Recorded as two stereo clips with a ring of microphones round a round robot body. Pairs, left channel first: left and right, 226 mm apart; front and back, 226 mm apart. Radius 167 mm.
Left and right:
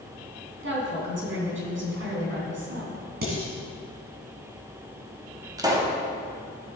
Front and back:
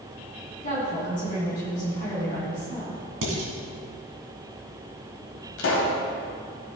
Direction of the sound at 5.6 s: 20° right.